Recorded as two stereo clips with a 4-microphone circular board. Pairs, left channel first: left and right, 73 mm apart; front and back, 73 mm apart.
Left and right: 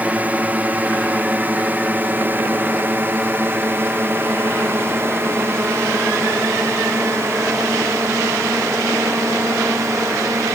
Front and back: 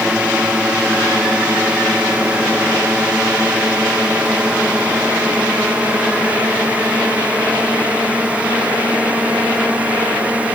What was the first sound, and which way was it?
A drone, 125° right.